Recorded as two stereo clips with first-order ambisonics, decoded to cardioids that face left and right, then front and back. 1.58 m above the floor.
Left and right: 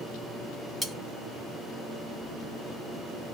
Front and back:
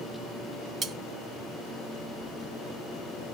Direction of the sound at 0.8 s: 175° right.